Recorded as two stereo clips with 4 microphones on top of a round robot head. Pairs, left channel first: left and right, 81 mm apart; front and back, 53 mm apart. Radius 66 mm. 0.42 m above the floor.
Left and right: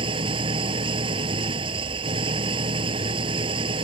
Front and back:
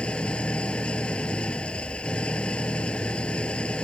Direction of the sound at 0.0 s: 75° right.